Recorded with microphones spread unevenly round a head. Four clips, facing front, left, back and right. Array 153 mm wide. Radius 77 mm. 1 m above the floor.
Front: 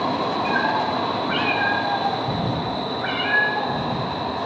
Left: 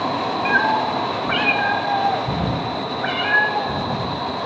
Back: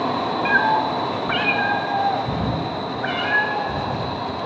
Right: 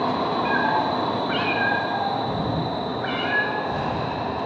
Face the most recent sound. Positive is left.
turn(degrees=110)